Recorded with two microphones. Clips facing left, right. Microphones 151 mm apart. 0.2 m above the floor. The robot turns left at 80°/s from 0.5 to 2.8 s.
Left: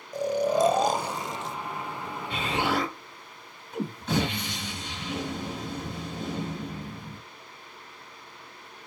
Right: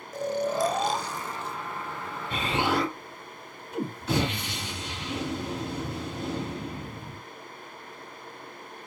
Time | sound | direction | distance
0.1 | snoring | 165° left | 0.5 m
2.3 | an explosion | 135° right | 4 m